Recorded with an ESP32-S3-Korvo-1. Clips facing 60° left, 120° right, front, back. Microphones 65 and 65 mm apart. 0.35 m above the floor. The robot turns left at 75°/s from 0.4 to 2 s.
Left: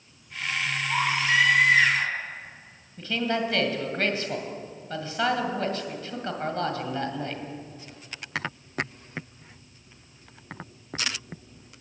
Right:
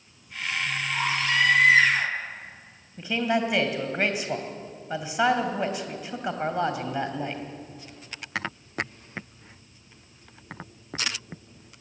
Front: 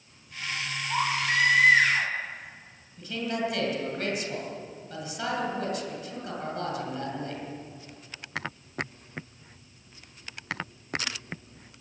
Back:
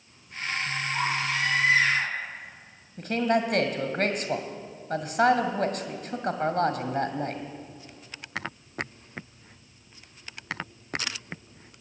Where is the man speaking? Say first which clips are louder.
Right 2 dB, back 6 dB; 170° left, 2 m.